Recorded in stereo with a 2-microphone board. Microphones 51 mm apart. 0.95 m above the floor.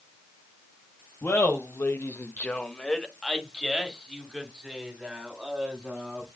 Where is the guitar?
No guitar in this recording.